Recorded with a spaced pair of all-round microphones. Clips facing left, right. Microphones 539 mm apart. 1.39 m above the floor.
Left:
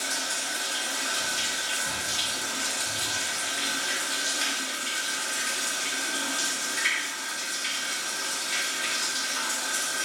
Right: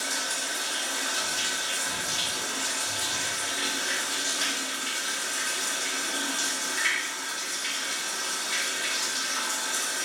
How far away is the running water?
About 2.5 m.